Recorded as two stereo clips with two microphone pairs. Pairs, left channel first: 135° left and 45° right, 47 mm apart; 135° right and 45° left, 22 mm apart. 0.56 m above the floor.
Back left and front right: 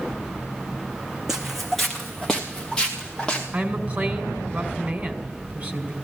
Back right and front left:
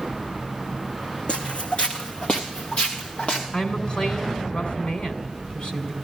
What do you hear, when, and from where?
1.3 s footsteps: 125° right, 1.7 m; by 3.4 s 150° right, 3.5 m
3.5 s a woman speaking: 100° right, 2.5 m